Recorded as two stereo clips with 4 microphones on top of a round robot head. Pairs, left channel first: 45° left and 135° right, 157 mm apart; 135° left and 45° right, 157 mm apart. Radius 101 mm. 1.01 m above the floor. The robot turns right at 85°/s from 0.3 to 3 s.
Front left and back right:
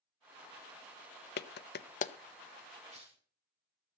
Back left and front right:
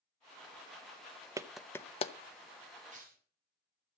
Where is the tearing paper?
90° right, 5 m; by 3.2 s 80° right, 5 m.